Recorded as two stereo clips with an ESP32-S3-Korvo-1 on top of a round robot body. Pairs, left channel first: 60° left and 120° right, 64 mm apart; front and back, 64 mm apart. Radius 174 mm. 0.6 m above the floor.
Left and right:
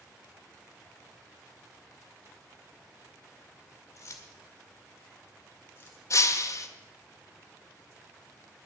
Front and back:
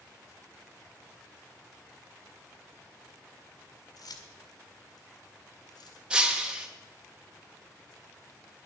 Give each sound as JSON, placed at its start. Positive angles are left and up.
{"t": 4.0, "sound": "keys jangling", "azimuth_deg": 15, "distance_m": 1.9}
{"t": 6.1, "sound": "breaking glass", "azimuth_deg": 105, "distance_m": 0.9}